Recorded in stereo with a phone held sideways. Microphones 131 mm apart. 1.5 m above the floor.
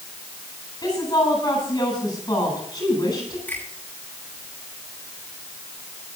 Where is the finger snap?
15° left (ahead or behind), 9.5 m.